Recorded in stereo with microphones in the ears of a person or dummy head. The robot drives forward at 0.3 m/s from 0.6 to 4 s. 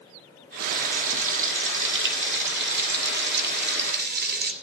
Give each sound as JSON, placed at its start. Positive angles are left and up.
{"t": 0.6, "sound": "frying", "side_deg": -65, "distance_m": 2.0}